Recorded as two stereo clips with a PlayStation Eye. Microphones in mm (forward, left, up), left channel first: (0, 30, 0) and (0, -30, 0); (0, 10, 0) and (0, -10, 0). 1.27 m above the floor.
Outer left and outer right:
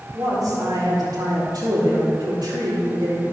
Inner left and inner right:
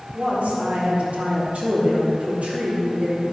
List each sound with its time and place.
0.1 s a woman speaking: 85° right, 3.5 m